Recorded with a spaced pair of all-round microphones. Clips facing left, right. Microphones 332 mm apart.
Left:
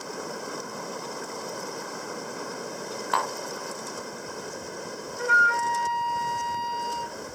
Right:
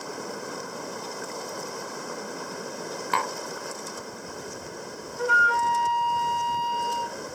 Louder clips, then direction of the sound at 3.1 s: Even; 35° right (ahead or behind).